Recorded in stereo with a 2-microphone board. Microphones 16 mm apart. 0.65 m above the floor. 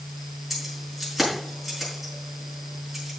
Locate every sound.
0.5 s keys jangling: 10° right (ahead or behind), 6 m